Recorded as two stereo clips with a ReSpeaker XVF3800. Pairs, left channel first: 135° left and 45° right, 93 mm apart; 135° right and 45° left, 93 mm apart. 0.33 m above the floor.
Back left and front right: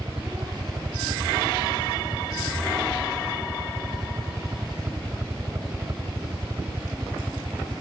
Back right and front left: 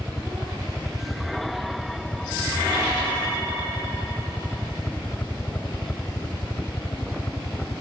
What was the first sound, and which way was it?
A helicopter, 45° right.